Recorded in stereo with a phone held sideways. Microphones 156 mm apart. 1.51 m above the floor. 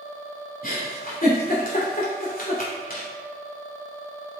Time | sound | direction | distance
0.6 | a giggle | 65° left (ahead or behind) | 2.5 m